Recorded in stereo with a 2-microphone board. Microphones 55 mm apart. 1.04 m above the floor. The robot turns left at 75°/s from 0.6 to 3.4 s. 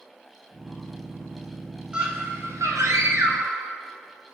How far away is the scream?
About 7 m.